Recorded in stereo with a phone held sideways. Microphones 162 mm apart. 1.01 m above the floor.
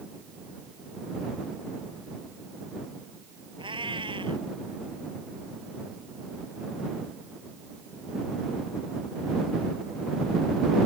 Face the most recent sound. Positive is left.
turn(degrees=-30)  # may be behind; listen again after turning